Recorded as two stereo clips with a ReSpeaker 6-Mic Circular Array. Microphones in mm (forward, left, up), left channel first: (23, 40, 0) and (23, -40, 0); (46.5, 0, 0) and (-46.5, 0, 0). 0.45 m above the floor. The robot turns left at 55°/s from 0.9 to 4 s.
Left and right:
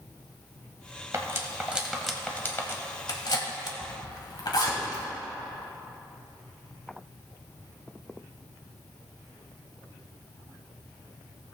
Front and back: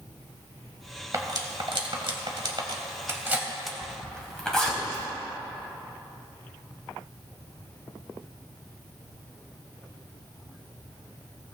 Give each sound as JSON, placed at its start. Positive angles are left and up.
{"t": 1.1, "sound": "cutlery clinking", "azimuth_deg": -130, "distance_m": 1.4}
{"t": 3.8, "sound": "a zipper", "azimuth_deg": 95, "distance_m": 2.5}